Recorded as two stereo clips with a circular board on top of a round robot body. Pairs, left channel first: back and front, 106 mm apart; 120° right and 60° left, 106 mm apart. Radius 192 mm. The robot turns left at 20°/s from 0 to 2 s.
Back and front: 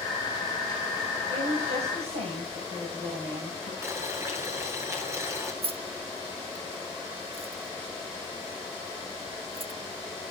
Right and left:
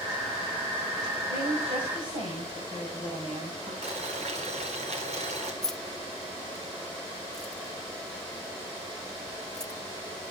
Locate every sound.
1.3 s a woman speaking: 30° left, 7.5 m; by 3.7 s 15° left, 7.5 m
3.8 s boiling: 65° left, 6 m
5.6 s keys jangling: 35° right, 1.2 m